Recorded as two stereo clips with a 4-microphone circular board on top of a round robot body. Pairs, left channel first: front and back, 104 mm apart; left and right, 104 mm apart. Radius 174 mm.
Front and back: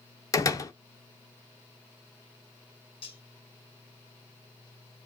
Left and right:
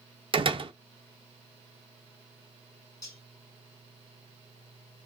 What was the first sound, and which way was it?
A door slam, 55° right.